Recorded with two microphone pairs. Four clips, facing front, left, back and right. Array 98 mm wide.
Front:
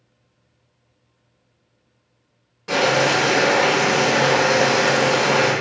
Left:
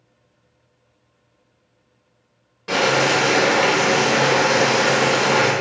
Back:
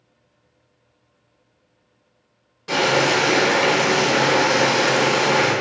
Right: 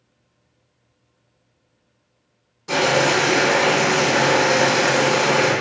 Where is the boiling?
75° left, 1.1 m.